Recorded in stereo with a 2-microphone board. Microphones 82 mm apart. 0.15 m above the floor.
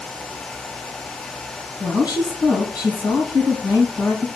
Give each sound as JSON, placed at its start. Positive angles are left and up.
{"t": 1.8, "sound": "a woman speaking", "side_deg": 55, "distance_m": 3.0}